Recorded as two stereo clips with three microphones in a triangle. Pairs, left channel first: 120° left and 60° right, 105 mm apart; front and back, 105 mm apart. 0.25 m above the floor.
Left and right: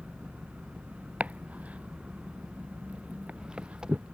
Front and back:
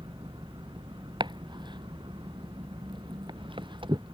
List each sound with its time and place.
0.0 s an engine running: 140° right
1.2 s chopping: 135° right